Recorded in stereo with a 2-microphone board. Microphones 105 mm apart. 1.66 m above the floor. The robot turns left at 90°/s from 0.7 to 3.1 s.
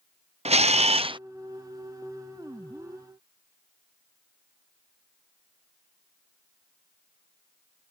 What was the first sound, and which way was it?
A camera shutter, 85° right.